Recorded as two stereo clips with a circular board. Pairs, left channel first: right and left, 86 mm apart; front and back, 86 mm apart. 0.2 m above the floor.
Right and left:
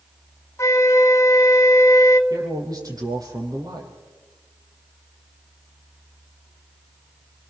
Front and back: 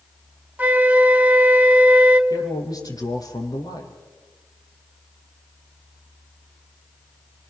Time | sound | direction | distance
0.6 | a flute | 120° right | 1.3 m
2.3 | a man speaking | 45° left | 5 m